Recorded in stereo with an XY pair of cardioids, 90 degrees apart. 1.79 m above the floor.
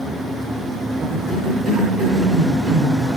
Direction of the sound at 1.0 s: 65° right.